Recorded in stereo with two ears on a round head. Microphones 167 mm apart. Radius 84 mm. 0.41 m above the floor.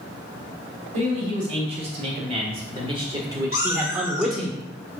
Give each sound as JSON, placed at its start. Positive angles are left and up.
{"t": 0.9, "sound": "a man speaking", "side_deg": -35, "distance_m": 1.9}
{"t": 3.5, "sound": "a cat meowing", "side_deg": 65, "distance_m": 1.3}